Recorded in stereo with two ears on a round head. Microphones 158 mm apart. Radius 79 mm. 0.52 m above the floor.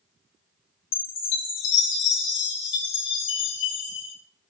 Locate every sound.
0.9 s a chime: 70° left (ahead or behind), 2.5 m